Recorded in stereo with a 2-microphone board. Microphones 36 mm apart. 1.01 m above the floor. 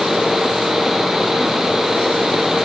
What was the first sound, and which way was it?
Only background noise.